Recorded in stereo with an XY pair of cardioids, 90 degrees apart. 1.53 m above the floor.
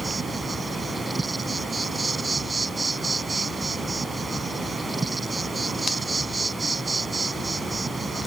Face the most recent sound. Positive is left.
turn(degrees=-30)